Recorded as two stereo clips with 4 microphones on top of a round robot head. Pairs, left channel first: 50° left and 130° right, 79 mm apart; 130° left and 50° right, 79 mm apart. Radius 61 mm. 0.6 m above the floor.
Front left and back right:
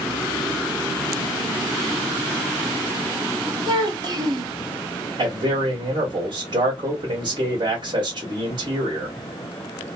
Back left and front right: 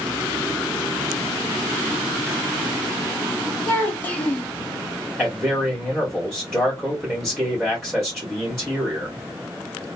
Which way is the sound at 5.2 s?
140° right.